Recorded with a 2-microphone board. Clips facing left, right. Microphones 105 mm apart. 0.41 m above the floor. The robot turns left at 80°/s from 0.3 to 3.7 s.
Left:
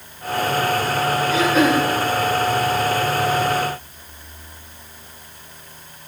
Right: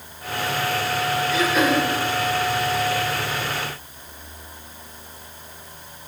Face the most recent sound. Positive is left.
turn(degrees=-30)